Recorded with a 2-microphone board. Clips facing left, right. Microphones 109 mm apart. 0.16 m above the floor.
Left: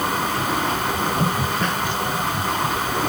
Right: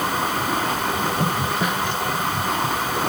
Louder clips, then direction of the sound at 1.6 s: Even; 10° right (ahead or behind).